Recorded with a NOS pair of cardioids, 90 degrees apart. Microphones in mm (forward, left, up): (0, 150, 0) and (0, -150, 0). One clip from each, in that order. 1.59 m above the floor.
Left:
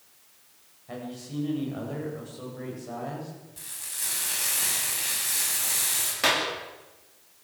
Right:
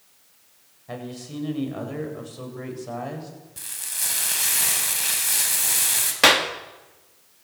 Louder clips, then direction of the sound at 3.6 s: Right 6 dB; 45° right.